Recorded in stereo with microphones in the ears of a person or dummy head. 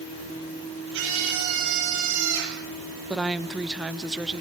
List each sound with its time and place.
0.9 s a scream: 75° right (ahead or behind), 10 m
3.1 s a woman speaking: 5° right (ahead or behind), 0.7 m